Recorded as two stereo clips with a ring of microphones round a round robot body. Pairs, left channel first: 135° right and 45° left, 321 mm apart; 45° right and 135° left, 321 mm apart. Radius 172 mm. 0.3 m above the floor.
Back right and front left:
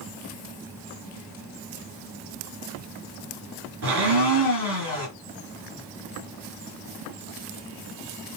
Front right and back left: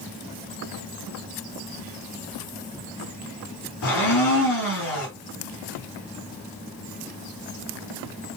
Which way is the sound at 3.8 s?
Straight ahead.